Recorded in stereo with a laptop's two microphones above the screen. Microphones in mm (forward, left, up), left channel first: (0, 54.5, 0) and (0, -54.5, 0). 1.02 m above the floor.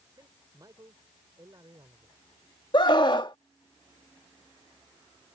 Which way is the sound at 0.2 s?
35° right (ahead or behind).